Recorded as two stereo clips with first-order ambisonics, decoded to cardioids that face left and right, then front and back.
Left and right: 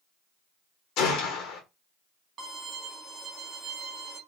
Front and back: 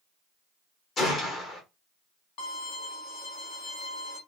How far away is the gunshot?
About 1.0 m.